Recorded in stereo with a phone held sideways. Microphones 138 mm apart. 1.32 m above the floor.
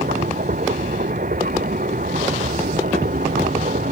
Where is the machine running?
80° right.